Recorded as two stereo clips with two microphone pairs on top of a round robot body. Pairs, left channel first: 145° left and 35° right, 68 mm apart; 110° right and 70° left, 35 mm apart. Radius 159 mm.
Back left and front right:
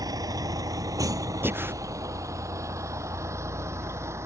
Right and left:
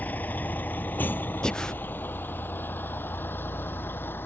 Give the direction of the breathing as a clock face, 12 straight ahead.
1 o'clock.